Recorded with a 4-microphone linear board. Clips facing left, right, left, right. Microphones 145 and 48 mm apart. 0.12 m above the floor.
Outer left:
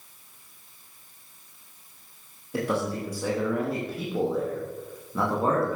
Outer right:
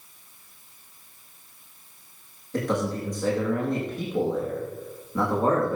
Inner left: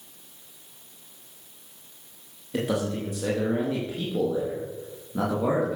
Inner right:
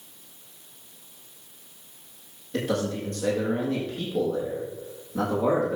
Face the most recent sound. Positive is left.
turn(degrees=5)  # may be behind; listen again after turning